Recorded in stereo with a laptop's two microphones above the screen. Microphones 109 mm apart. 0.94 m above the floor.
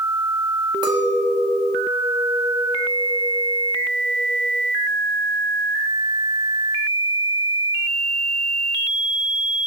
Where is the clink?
40° right (ahead or behind), 0.8 m.